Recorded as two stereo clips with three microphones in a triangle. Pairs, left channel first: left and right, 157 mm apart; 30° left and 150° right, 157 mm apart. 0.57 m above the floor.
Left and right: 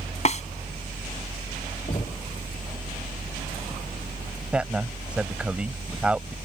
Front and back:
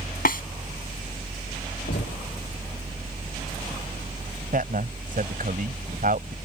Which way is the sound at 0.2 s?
50° left.